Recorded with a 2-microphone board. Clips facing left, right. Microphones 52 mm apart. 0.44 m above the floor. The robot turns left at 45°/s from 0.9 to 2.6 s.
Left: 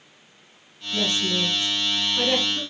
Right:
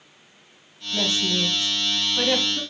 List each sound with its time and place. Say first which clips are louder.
0.9 s a woman speaking: even; 30° right (ahead or behind), 1.3 m; by 2.6 s centre (ahead or behind), 1.3 m